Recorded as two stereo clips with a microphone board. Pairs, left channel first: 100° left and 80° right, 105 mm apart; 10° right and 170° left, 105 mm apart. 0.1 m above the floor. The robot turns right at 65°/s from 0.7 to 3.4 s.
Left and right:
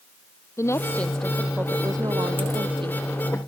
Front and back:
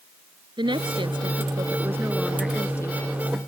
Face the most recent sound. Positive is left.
turn(degrees=-30)